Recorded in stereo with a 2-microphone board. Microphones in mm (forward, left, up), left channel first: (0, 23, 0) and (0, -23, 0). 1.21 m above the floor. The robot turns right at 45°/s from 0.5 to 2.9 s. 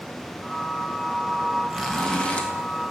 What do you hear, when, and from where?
1.7 s a zipper: straight ahead, 1.2 m; by 2.5 s 35° left, 1.2 m